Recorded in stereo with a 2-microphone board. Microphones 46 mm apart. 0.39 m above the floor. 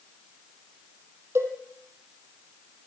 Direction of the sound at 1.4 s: 65° right (ahead or behind).